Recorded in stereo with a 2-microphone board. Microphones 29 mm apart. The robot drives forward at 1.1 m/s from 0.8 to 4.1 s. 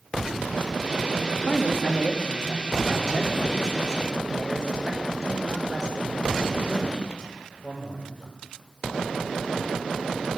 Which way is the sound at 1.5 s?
60° left (ahead or behind).